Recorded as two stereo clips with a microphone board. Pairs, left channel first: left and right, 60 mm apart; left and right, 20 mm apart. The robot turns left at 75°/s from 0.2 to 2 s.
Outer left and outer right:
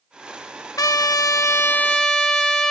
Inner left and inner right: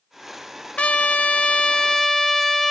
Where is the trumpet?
105° left, 0.9 m; by 2.7 s 10° left, 0.9 m.